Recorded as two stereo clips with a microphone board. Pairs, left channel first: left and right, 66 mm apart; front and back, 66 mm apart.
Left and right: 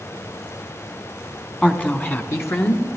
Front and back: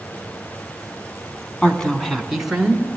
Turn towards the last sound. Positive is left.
turn(degrees=105)